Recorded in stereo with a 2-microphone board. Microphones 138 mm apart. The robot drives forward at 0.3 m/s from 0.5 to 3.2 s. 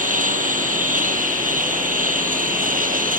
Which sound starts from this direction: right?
A lawn mower, at 0.0 s.